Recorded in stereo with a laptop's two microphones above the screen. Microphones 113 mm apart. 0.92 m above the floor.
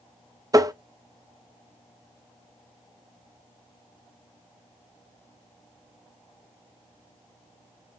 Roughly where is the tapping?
Right.